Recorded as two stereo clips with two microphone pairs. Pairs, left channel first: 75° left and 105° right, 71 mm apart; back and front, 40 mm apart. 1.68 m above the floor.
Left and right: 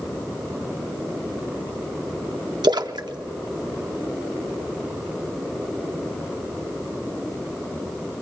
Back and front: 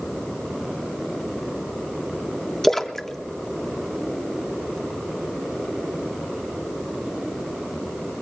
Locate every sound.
2.6 s a splash: 100° right, 0.6 m